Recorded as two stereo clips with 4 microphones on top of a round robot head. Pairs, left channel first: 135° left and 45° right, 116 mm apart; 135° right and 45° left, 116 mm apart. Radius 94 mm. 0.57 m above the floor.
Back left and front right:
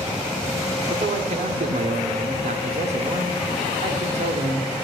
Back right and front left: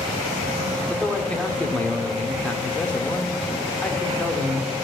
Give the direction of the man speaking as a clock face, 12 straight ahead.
2 o'clock.